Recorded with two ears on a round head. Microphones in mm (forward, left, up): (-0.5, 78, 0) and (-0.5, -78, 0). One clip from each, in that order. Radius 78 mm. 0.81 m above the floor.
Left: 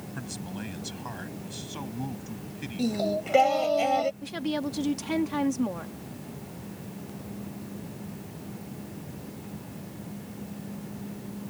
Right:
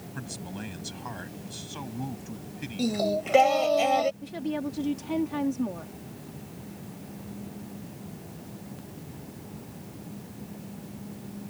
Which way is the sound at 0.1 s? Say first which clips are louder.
Even; 5° right (ahead or behind).